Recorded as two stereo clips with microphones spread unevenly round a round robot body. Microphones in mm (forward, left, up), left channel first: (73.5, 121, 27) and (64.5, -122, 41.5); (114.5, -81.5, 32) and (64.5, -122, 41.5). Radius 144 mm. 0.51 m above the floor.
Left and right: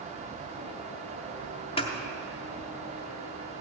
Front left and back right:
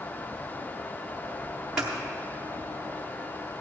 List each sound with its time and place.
1.8 s scissors: 135° left, 0.9 m